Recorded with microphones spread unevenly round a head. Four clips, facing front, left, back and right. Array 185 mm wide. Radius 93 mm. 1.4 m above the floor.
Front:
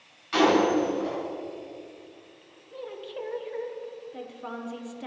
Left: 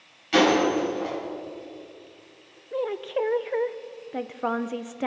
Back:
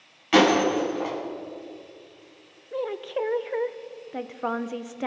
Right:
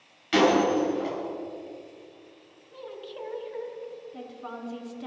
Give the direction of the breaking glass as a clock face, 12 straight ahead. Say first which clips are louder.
Left 1 dB, back 2 dB; 5 o'clock.